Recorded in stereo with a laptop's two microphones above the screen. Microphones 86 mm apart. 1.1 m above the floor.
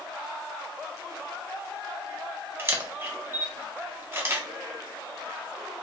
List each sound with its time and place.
2.6 s a camera shutter: 25° right (ahead or behind), 0.6 m